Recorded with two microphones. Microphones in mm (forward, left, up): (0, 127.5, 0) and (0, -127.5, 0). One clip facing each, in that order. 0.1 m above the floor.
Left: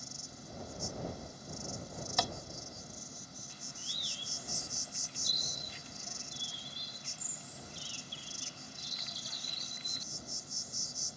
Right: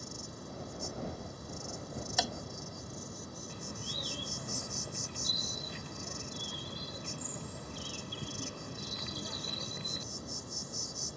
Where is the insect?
65° right (ahead or behind).